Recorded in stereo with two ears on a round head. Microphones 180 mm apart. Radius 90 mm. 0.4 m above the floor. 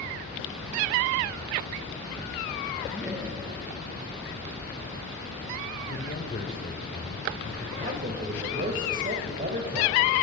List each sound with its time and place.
2.9 s laughter: 5° right (ahead or behind), 3 m
5.9 s a man speaking: 45° left (ahead or behind), 1.7 m
7.8 s a man speaking: 40° right (ahead or behind), 1.9 m